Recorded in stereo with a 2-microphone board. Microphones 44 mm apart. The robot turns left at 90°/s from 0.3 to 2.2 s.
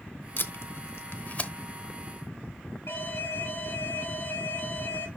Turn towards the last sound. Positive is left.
turn(degrees=60)  # may be behind; listen again after turning